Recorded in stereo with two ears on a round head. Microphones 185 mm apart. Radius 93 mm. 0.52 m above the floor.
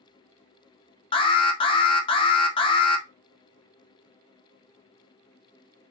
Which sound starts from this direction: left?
An alarm, at 1.1 s.